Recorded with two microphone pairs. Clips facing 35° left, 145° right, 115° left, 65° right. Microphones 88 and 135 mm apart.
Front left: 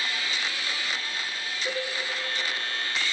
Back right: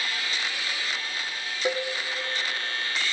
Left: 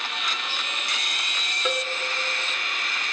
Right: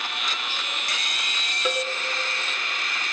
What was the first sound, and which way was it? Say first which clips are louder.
A cowbell: back right 5 dB, right 1 dB; 150° right.